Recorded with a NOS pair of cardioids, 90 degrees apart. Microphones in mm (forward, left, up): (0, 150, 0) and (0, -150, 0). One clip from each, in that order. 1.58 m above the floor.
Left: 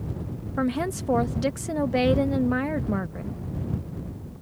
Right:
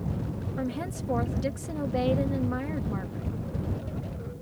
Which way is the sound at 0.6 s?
45° left.